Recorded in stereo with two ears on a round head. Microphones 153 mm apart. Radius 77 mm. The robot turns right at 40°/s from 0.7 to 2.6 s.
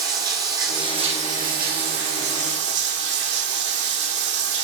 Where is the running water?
155° right, 2 m; by 4.7 s 80° right, 2 m.